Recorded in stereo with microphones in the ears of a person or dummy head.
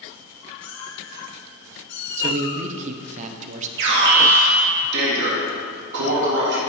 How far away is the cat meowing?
About 2 m.